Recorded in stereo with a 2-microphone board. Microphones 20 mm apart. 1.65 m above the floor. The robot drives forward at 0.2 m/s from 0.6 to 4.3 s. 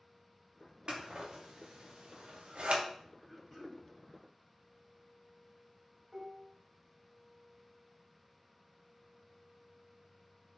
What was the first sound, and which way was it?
Scissors, 55° right (ahead or behind).